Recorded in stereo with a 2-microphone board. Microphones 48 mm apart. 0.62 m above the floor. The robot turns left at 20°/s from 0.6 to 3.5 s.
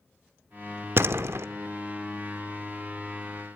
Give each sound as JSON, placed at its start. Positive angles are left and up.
{"t": 1.0, "sound": "a door slam", "side_deg": -55, "distance_m": 0.9}